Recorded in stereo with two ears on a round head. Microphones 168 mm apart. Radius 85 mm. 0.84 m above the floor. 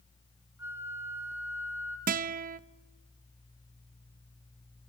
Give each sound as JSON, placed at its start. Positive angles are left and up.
{"t": 0.6, "sound": "a flute", "side_deg": -15, "distance_m": 3.0}
{"t": 2.1, "sound": "a guitar", "side_deg": -50, "distance_m": 0.6}